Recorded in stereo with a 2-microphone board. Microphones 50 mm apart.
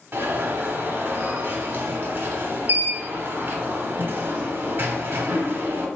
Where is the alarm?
50° right (ahead or behind), 0.8 m.